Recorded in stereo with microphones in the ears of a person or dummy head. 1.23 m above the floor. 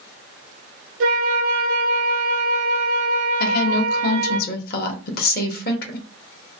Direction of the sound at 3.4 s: 55° left (ahead or behind).